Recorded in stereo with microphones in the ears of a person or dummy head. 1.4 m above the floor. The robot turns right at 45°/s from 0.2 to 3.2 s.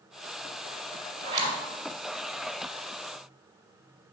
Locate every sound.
1.2 s a zipper: 35° right (ahead or behind), 2 m; by 1.6 s 20° right (ahead or behind), 2 m